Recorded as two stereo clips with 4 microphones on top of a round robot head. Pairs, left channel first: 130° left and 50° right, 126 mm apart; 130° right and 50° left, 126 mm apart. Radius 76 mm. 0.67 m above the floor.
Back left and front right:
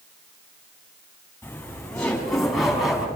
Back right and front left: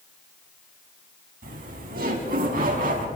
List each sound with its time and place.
1.4 s laughter: 55° left, 5.5 m; by 3.0 s 35° left, 6.5 m